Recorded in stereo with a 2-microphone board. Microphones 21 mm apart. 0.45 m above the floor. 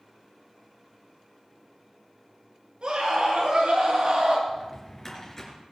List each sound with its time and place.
2.8 s a scream: 60° right (ahead or behind), 6 m; by 4.4 s 65° right (ahead or behind), 5 m
4.5 s a drawer: 20° left (ahead or behind), 3.5 m